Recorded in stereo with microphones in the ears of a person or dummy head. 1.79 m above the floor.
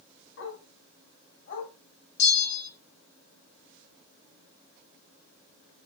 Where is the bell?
60° left (ahead or behind), 4 m.